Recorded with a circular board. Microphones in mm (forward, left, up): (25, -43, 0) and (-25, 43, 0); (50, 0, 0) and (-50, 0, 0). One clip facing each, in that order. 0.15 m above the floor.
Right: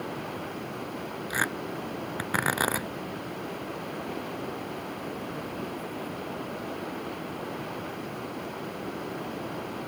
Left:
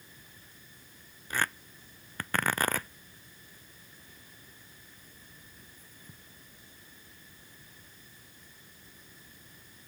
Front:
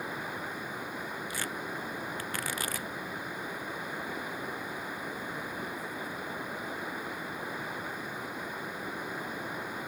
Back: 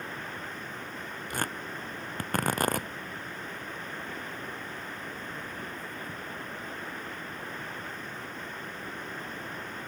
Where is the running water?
80° right.